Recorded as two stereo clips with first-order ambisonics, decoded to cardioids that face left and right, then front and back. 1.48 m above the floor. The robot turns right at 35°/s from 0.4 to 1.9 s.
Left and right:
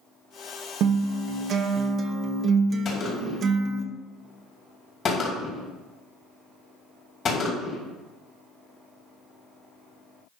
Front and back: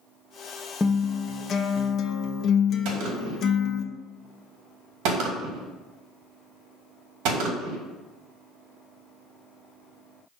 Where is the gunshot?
155° left, 2.5 m.